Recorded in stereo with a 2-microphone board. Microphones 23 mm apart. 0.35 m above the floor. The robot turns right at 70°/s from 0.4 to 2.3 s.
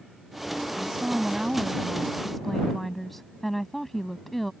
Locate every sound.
0.8 s a woman speaking: 95° right; by 4.5 s 15° left